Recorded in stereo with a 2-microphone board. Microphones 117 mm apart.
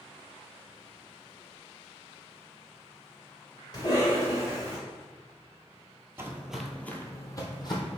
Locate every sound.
3.7 s a cough: 35° left (ahead or behind), 1.7 m
6.2 s footsteps: 25° right (ahead or behind), 0.5 m; by 8.0 s 45° left (ahead or behind), 1.0 m